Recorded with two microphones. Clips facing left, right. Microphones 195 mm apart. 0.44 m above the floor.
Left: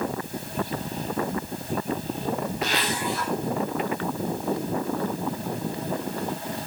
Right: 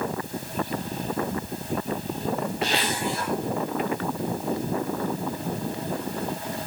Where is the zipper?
30° right (ahead or behind), 8.5 m.